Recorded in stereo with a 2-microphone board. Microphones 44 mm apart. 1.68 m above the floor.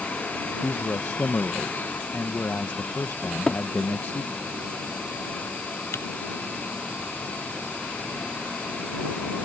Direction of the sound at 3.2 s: 15° left (ahead or behind).